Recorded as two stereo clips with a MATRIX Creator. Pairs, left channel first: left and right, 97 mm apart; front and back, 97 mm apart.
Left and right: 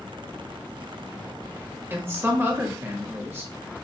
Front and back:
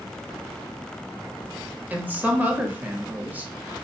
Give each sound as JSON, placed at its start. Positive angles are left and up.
{"t": 1.9, "sound": "a woman speaking", "azimuth_deg": -130, "distance_m": 1.0}